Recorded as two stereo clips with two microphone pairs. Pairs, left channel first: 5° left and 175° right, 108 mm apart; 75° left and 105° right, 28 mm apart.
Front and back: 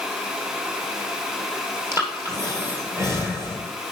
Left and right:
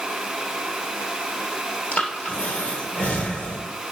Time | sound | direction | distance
1.9 | breathing | 120° left | 2.5 m